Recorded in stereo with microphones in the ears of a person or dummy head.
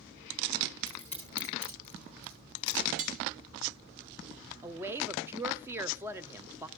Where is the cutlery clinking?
45° right (ahead or behind), 0.9 m.